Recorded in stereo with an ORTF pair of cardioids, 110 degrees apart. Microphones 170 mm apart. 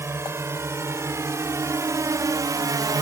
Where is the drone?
15° right; by 3.0 s 30° right.